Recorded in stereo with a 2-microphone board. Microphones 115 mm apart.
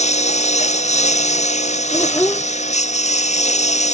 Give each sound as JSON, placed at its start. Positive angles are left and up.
{"t": 0.0, "sound": "a lawn mower", "side_deg": 80}
{"t": 1.9, "sound": "a child speaking", "side_deg": 15}